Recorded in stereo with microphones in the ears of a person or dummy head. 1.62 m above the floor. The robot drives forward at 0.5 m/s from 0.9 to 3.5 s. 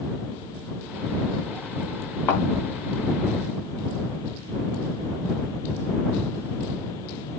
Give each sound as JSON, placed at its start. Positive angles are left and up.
{"t": 2.3, "sound": "a thud", "side_deg": 15, "distance_m": 4.0}